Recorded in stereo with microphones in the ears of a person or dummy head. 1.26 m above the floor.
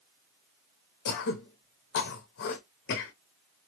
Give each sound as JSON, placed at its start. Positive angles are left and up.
{"t": 1.1, "sound": "throat clearing", "side_deg": 50, "distance_m": 0.7}